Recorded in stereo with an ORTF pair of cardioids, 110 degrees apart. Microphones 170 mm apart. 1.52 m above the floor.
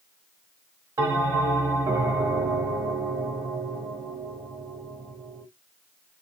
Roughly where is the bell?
Ahead.